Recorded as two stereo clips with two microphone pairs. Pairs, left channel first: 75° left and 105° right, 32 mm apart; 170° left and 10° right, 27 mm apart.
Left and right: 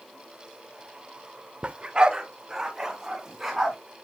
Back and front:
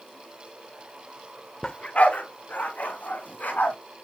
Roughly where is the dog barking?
Behind right.